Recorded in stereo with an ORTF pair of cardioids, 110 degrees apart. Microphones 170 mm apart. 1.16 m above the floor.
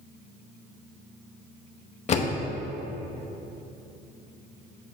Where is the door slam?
40° left, 0.9 m.